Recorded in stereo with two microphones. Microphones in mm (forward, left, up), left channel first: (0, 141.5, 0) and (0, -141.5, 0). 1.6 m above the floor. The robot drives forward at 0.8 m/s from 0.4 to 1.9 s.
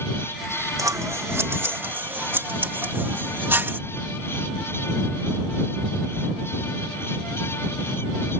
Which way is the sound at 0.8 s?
10° right (ahead or behind).